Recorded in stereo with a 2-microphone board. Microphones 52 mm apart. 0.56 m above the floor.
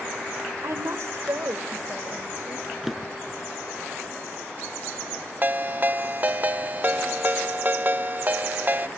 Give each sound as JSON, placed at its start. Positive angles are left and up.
{"t": 0.6, "sound": "a woman speaking", "side_deg": -65, "distance_m": 1.5}
{"t": 2.8, "sound": "a drawer", "side_deg": -5, "distance_m": 2.0}
{"t": 5.4, "sound": "a ringtone", "side_deg": -35, "distance_m": 0.6}